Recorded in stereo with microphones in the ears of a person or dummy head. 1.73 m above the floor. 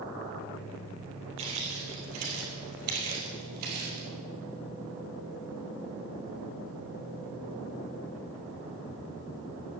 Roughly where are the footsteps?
Right.